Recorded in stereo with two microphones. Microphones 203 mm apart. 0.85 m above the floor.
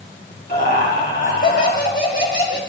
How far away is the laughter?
About 5 m.